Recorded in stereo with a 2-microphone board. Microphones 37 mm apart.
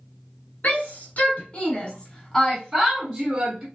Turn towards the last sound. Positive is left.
turn(degrees=-35)  # may be behind; listen again after turning